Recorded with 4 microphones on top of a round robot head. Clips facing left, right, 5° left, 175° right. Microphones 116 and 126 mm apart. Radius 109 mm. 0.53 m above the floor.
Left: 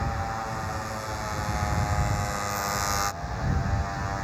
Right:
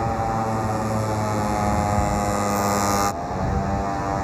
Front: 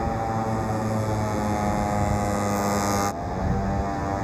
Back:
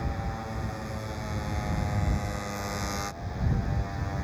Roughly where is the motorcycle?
Ahead right.